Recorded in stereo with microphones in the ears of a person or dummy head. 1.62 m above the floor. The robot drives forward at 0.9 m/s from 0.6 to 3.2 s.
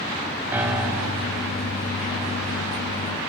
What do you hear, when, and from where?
0.5 s a piano: 10° right (ahead or behind), 0.5 m; by 1.3 s 5° right (ahead or behind), 1.2 m